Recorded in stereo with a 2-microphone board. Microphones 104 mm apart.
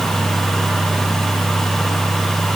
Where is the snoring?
I don't hear snoring.